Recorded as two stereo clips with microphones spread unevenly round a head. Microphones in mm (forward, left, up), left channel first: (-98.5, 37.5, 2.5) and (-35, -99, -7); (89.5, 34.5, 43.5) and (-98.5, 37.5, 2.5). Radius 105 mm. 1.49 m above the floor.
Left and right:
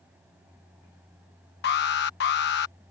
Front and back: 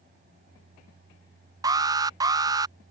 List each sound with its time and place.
1.6 s an alarm: 110° left